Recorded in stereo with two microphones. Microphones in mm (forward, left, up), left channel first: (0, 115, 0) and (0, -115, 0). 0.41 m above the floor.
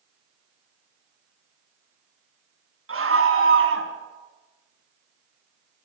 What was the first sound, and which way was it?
A scream, 70° right (ahead or behind).